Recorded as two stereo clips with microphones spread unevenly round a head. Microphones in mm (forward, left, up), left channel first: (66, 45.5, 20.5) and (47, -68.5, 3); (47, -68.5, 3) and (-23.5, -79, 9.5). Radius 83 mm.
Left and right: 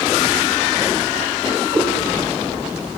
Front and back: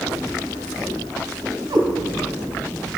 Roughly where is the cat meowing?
Behind.